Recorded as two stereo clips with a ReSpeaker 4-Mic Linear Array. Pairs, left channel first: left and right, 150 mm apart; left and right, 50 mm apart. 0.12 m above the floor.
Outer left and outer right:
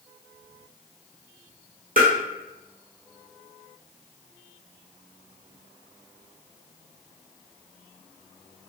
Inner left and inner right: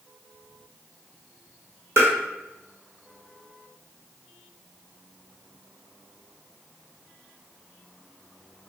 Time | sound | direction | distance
2.0 | tapping | 70° right (ahead or behind) | 1.0 m